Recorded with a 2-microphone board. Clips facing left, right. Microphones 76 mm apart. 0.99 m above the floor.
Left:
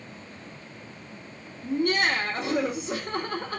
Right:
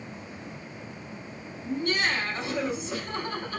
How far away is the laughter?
About 1.0 m.